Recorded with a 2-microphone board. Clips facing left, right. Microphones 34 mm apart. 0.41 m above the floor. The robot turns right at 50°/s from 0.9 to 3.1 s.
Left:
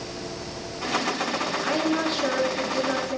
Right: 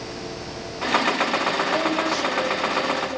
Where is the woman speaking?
20° left, 4 m; by 3.2 s 90° left, 4 m.